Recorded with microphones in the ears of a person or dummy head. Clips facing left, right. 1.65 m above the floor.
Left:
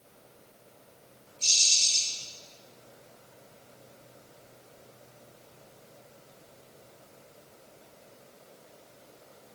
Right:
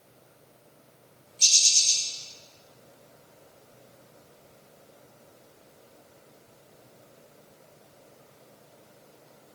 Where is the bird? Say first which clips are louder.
Right 1 dB; 75° right (ahead or behind), 5.5 m.